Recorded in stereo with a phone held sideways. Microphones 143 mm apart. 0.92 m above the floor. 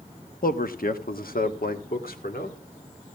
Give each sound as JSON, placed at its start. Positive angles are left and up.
{"t": 0.4, "sound": "a man speaking", "side_deg": 75, "distance_m": 1.0}